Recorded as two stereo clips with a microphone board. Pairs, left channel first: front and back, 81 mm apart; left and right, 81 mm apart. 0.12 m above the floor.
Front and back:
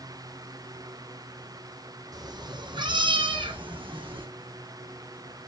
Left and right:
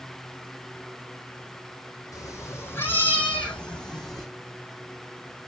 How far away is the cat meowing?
About 1.3 m.